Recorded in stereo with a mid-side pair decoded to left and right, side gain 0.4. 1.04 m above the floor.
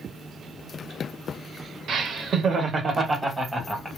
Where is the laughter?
65° right, 1.1 m; by 3.9 s 5° right, 1.2 m.